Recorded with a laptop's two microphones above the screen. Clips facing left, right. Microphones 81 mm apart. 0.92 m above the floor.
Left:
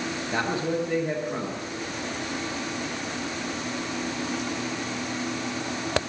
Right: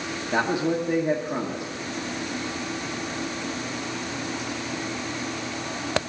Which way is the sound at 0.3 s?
15° right (ahead or behind).